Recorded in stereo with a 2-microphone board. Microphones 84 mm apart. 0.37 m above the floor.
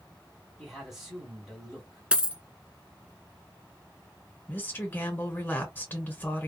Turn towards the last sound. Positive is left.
turn(degrees=25)  # may be behind; listen again after turning